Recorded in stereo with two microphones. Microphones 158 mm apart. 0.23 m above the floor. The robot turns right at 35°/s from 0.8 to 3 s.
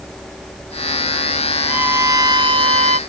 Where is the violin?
170° right; by 3.0 s 125° right.